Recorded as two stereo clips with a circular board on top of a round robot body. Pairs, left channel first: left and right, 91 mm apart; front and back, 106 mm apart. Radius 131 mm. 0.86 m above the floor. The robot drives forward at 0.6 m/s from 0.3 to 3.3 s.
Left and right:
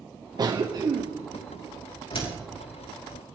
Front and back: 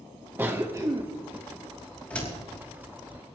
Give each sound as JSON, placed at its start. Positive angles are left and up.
{"t": 0.4, "sound": "a cough", "azimuth_deg": -115, "distance_m": 1.2}
{"t": 2.1, "sound": "a door slam", "azimuth_deg": 75, "distance_m": 5.0}